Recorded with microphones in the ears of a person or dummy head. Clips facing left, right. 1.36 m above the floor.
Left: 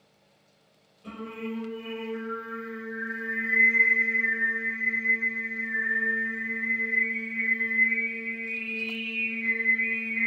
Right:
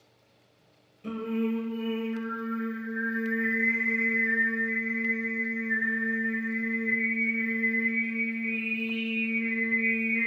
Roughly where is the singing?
Right.